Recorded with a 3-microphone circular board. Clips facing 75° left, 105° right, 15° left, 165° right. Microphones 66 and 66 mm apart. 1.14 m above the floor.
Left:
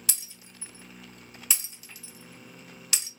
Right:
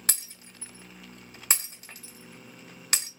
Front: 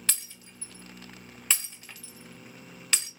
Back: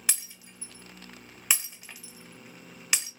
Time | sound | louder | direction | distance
0.1 | breaking glass | right 9 dB, back 2 dB | 90° right | 1.2 m